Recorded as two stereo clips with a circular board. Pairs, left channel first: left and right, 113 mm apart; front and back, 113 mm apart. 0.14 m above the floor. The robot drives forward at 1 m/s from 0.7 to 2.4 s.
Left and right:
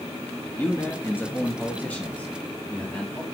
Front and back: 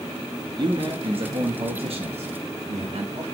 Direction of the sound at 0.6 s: 155° left.